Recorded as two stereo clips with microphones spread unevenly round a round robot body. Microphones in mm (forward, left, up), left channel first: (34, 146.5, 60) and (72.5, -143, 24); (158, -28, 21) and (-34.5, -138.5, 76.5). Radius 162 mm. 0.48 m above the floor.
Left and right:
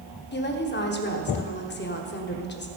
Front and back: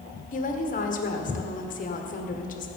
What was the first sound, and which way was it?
A woman speaking, 45° left.